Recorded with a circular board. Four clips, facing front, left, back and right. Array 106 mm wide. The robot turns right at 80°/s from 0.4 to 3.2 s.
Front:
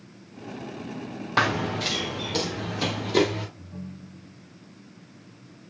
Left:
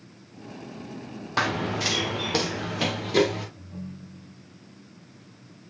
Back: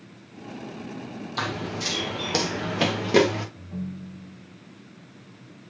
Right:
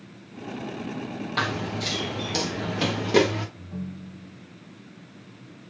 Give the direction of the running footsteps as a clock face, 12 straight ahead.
11 o'clock.